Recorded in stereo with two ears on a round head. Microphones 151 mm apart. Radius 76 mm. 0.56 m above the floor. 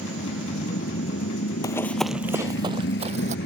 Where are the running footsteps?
25° left (ahead or behind); by 3.4 s 50° right (ahead or behind).